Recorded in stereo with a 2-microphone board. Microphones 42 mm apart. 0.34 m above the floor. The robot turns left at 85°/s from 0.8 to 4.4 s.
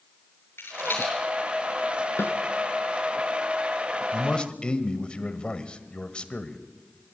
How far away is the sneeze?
I don't hear a sneeze.